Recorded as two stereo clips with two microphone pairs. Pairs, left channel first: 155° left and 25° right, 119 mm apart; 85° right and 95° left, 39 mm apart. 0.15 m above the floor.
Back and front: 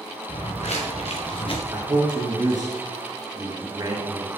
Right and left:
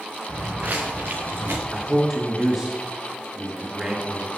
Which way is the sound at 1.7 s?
20° left.